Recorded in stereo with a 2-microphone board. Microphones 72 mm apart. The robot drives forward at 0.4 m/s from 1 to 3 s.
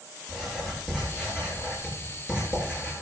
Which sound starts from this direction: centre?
Writing, at 0.3 s.